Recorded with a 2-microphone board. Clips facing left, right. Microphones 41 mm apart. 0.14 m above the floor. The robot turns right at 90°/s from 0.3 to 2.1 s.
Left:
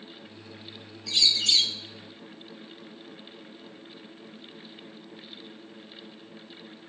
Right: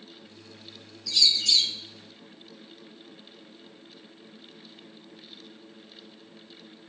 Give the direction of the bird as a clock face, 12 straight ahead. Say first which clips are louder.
Even; 10 o'clock.